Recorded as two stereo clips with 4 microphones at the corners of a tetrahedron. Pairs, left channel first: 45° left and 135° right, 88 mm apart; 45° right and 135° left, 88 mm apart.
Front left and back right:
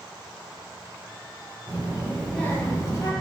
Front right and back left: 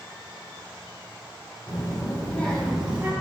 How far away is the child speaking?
About 0.9 m.